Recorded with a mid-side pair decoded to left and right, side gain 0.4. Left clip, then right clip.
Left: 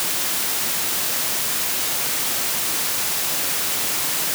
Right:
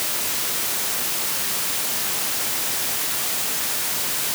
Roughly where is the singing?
I don't hear singing.